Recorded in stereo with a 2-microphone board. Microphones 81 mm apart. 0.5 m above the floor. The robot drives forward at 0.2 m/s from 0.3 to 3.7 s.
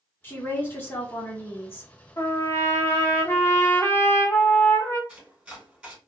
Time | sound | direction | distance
0.2 | a woman speaking | 25° left (ahead or behind) | 1.3 m
2.2 | a trumpet | 35° left (ahead or behind) | 0.6 m
5.1 | chopping | 10° right (ahead or behind) | 2 m